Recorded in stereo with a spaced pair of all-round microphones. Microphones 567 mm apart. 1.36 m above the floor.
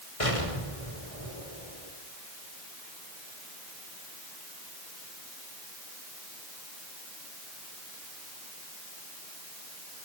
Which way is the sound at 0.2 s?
65° left (ahead or behind).